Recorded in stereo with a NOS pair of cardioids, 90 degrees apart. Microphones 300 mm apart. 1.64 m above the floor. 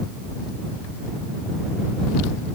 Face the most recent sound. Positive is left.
No sound to turn to.